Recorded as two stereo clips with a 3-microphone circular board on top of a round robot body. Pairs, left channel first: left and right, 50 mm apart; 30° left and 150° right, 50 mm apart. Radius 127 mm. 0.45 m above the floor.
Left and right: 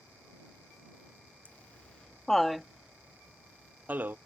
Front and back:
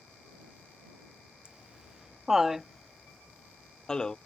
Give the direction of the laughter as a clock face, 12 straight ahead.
7 o'clock.